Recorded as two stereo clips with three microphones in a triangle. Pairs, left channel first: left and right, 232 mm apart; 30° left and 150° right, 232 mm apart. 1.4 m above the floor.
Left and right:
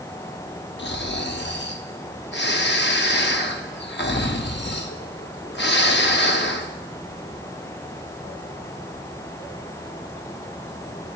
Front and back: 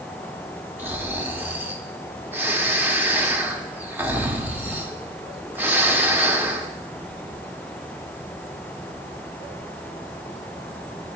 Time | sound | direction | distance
0.8 | snoring | 130° left | 1.0 m